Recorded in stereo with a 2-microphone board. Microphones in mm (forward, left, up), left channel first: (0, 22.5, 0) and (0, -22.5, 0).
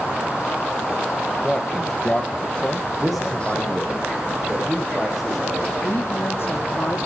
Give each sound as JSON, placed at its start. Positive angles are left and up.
{"t": 1.4, "sound": "a man speaking", "side_deg": 10, "distance_m": 3.0}
{"t": 3.0, "sound": "a man speaking", "side_deg": 0, "distance_m": 9.0}
{"t": 5.8, "sound": "a woman speaking", "side_deg": 45, "distance_m": 6.5}